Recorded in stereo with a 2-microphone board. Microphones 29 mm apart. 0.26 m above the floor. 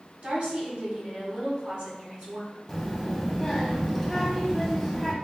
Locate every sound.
0.2 s a woman speaking: 50° right (ahead or behind), 1.6 m
2.7 s a child speaking: centre (ahead or behind), 1.1 m